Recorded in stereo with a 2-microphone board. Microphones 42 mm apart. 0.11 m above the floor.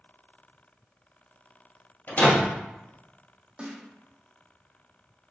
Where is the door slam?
45° left (ahead or behind), 1.9 m.